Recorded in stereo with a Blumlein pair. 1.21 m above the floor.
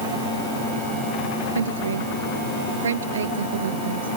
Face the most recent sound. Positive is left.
turn(degrees=-70)